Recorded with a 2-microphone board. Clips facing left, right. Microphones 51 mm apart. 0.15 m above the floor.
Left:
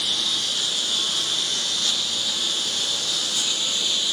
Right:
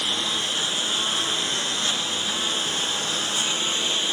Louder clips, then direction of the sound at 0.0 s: Right 1 dB; 30° right (ahead or behind).